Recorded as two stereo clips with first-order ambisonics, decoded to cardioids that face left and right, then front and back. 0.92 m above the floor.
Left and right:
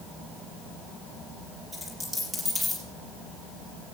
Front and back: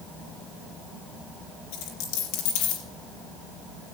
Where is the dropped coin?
5° right, 4 m.